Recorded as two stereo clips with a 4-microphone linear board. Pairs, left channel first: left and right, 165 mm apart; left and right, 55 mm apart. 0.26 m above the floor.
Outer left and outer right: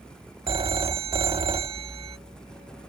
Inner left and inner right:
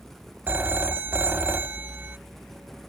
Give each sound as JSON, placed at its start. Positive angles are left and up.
{"t": 0.5, "sound": "a phone ringing", "side_deg": -35}